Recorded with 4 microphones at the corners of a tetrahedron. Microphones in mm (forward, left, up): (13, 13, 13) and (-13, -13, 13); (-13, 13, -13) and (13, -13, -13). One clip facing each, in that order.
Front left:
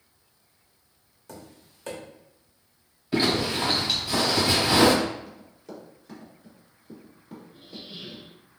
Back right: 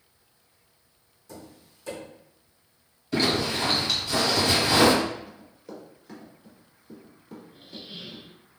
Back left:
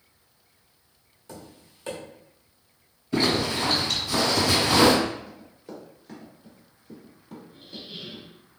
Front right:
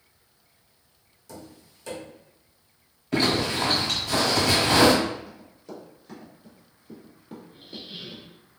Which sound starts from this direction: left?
Tapping, at 1.3 s.